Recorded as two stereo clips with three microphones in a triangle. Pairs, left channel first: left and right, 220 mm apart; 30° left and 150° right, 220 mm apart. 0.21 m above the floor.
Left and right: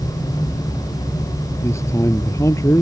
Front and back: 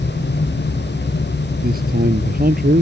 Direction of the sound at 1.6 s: 165° left.